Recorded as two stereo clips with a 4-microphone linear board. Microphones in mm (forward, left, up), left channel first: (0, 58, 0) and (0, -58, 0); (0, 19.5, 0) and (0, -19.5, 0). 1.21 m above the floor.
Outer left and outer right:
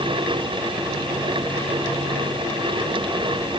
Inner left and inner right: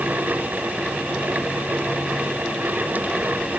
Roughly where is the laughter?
I don't hear laughter.